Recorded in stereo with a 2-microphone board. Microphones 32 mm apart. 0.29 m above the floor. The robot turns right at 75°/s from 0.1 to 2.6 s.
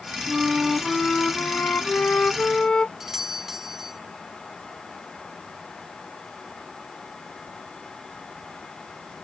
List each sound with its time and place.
0.3 s a flute: 20° right; by 2.9 s 155° left
3.0 s a doorbell: 10° right (ahead or behind)